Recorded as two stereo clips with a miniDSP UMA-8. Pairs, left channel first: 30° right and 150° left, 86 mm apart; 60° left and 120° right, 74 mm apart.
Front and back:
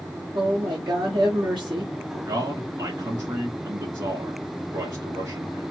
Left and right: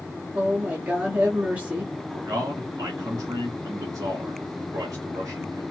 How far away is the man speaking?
About 2.5 m.